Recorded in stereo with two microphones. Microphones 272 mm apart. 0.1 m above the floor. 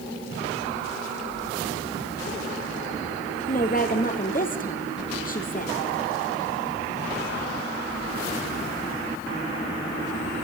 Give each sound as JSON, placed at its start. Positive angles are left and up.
{"t": 3.5, "sound": "a woman speaking", "side_deg": 30, "distance_m": 3.0}